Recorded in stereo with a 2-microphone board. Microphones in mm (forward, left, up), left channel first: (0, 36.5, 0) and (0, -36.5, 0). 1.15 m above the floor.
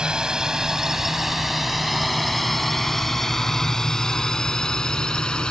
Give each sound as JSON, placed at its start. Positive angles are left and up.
{"t": 0.0, "sound": "a drone", "side_deg": -10}